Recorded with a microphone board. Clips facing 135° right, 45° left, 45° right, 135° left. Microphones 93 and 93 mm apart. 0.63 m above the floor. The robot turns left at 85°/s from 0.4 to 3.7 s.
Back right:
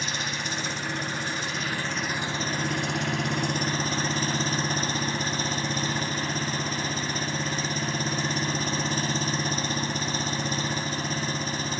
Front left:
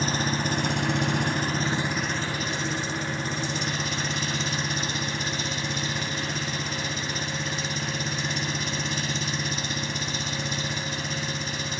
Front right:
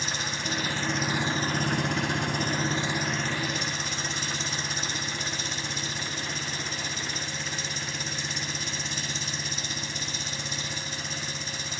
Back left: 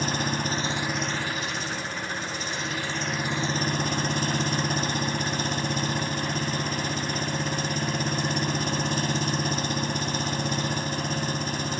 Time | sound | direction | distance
0.0 | an engine running | 95° left | ?